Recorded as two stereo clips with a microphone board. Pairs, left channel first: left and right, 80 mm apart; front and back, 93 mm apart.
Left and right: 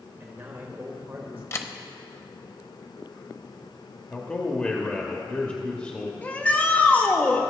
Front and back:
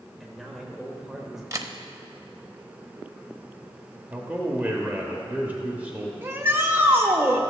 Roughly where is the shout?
Behind left.